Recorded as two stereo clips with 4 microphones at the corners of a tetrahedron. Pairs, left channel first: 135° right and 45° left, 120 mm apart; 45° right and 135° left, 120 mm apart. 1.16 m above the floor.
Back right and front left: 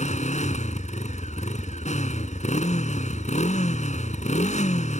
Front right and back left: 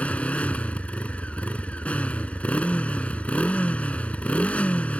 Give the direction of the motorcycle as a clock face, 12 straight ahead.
4 o'clock.